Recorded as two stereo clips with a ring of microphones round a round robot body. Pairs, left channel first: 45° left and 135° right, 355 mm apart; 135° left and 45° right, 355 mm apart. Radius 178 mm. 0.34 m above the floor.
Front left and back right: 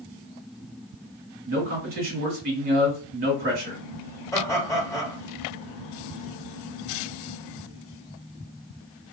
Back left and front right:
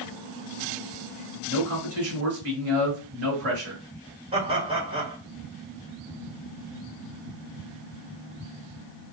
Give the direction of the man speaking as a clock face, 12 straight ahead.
3 o'clock.